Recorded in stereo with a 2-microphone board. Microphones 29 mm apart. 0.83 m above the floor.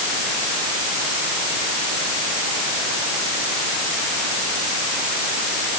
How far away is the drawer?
No drawer in this recording.